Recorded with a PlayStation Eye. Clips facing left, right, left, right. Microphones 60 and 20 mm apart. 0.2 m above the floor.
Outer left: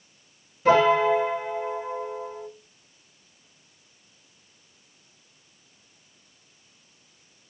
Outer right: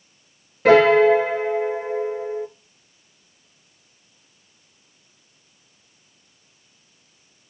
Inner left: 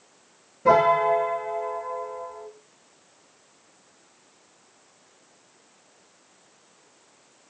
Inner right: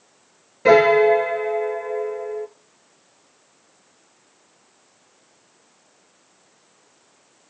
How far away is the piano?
About 0.8 m.